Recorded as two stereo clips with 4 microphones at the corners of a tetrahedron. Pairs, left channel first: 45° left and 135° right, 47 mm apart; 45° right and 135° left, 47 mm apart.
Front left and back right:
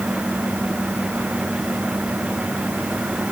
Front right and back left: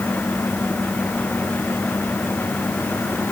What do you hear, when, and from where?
Only background noise.